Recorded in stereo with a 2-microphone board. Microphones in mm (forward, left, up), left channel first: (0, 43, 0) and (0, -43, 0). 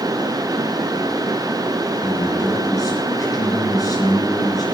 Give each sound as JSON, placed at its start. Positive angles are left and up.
{"t": 2.0, "sound": "a man speaking", "side_deg": 45, "distance_m": 4.5}